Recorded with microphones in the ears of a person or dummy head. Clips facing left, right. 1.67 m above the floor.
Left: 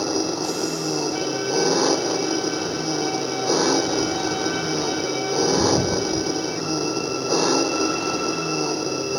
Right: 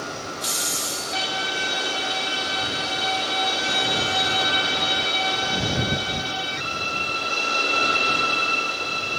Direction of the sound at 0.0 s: 85° left.